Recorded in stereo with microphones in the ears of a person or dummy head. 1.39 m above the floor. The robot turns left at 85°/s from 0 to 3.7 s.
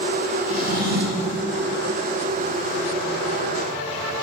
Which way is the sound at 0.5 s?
45° right.